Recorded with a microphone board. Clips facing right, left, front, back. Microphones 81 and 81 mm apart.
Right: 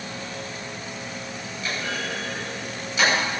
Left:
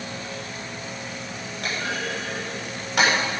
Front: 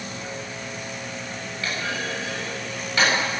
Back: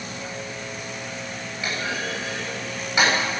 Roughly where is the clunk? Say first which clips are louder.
Left 1 dB, back 1 dB; left.